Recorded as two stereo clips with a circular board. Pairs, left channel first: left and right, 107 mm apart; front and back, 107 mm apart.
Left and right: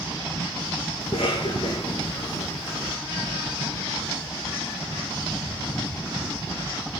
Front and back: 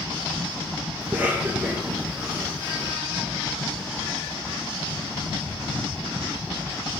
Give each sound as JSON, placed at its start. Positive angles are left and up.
{"t": 1.0, "sound": "a cough", "azimuth_deg": 105, "distance_m": 5.0}